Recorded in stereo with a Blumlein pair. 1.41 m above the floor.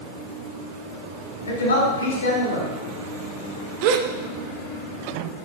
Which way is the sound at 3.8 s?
45° right.